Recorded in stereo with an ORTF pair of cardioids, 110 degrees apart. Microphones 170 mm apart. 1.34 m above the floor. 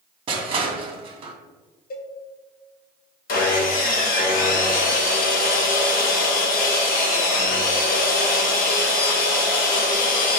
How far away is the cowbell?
About 0.7 m.